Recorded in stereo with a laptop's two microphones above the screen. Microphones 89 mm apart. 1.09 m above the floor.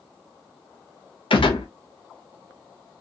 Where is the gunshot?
75° left (ahead or behind), 0.6 m.